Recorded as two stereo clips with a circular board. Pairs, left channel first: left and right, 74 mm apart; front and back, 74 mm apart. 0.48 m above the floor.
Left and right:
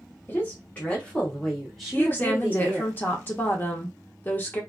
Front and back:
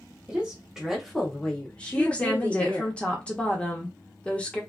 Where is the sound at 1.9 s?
55° left, 0.9 m.